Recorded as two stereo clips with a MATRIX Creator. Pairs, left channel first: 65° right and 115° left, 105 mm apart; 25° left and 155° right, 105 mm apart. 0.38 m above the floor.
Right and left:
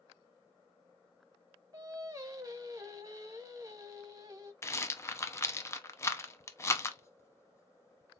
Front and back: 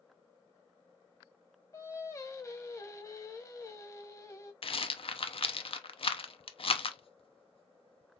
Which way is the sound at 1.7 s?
70° left.